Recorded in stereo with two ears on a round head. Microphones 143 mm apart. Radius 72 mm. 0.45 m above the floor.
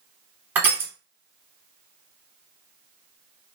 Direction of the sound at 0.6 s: 10° right (ahead or behind).